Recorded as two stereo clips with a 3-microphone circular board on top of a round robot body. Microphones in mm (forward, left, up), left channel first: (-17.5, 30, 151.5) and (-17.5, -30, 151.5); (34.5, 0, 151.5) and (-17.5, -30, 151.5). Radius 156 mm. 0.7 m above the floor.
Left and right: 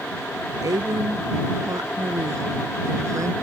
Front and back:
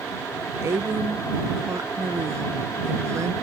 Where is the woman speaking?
110° right; by 3.4 s 120° right.